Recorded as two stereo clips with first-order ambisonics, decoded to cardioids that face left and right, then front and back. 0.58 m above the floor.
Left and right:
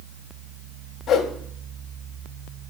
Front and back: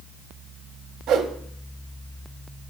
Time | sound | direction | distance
1.1 | a whoosh | 145° left | 0.5 m